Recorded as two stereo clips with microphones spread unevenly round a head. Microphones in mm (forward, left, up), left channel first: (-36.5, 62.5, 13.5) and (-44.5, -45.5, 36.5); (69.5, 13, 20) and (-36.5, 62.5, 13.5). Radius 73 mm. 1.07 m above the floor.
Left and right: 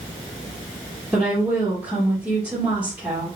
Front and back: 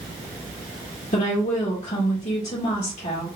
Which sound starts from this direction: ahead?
A woman speaking, at 1.1 s.